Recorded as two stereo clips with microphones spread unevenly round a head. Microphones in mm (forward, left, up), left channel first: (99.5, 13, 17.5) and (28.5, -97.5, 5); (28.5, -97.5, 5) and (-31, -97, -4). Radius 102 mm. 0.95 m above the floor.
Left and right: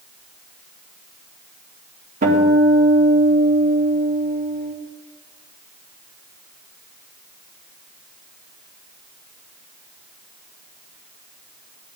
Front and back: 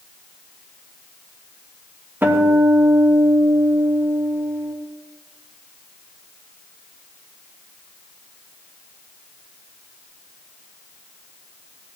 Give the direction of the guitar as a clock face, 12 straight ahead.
4 o'clock.